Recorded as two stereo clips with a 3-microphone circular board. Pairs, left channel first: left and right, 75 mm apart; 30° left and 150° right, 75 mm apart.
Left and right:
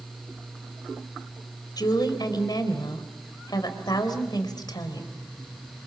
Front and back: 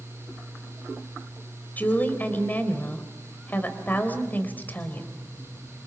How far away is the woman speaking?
About 3.5 m.